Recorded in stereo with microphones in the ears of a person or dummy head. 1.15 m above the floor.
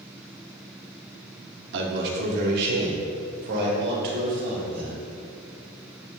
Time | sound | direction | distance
1.7 | a man speaking | 65° right (ahead or behind) | 1.9 m